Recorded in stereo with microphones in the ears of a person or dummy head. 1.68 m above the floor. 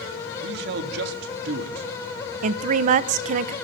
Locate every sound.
0.4 s a man speaking: 65° right (ahead or behind), 3 m
2.4 s a woman speaking: 50° right (ahead or behind), 1.2 m